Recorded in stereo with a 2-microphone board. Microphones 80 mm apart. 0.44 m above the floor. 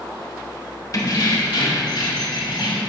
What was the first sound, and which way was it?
Keys jangling, 50° left (ahead or behind).